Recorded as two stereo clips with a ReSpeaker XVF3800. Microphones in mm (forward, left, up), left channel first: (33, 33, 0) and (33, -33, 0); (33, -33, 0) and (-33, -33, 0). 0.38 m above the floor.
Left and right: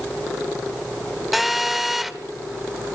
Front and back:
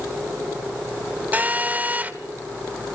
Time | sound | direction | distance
1.3 | a phone buzzing | 175° right | 1.5 m